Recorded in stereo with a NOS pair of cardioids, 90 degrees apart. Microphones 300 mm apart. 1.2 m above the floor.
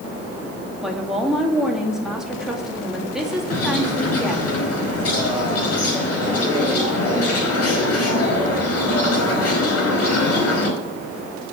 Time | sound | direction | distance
0.8 | a woman speaking | straight ahead | 2 m
3.5 | a bird | 55° left | 4.5 m